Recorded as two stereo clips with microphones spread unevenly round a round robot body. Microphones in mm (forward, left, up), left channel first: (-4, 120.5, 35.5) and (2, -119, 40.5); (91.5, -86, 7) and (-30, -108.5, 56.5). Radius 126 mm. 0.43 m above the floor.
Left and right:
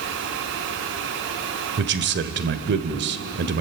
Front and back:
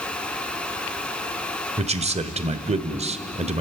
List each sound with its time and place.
1.8 s a man speaking: 125° right, 1.5 m